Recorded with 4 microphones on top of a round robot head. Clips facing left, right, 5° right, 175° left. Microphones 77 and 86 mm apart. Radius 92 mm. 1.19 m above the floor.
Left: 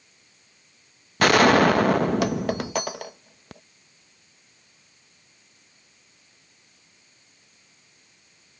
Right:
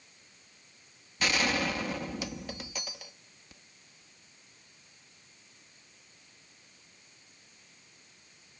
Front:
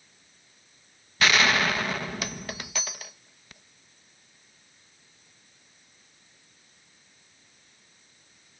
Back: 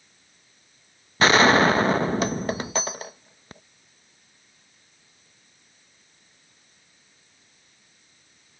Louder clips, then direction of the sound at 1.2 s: Left 14 dB, back 7 dB; 115° left.